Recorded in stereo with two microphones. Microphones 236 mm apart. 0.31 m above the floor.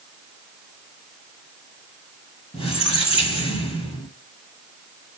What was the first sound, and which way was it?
A squeak, 25° left (ahead or behind).